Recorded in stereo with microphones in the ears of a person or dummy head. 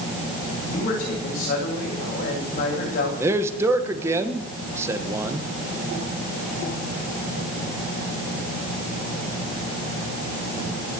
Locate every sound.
0.7 s a man speaking: 45° left (ahead or behind), 8 m
3.2 s a man speaking: 15° right (ahead or behind), 1.5 m